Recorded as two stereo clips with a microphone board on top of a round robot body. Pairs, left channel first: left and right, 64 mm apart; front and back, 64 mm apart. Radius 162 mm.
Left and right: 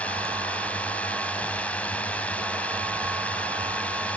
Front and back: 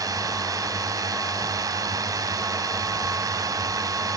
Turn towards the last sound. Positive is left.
turn(degrees=160)